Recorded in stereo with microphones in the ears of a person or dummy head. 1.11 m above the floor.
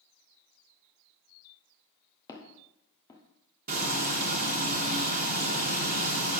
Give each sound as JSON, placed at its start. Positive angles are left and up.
{"t": 2.3, "sound": "footsteps", "side_deg": 15, "distance_m": 1.7}
{"t": 3.7, "sound": "frying", "side_deg": -45, "distance_m": 1.1}